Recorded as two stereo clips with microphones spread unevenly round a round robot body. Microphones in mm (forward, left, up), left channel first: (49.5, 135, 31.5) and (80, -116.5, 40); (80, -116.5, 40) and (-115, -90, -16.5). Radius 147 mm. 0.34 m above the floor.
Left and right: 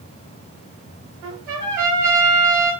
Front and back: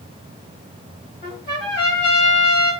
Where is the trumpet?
45° right, 1.7 m.